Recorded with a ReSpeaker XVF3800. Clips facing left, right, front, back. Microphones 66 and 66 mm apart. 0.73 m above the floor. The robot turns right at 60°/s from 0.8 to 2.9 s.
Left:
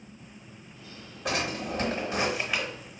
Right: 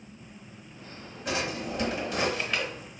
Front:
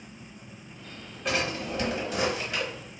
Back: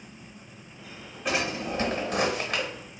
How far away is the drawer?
About 0.9 m.